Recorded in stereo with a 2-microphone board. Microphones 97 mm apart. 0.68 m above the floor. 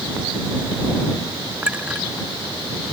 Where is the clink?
10° right (ahead or behind).